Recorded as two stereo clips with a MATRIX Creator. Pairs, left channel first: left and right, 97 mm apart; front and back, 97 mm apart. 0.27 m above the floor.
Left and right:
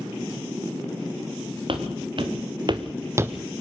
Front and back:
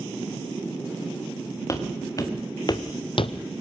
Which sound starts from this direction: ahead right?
Footsteps, at 1.7 s.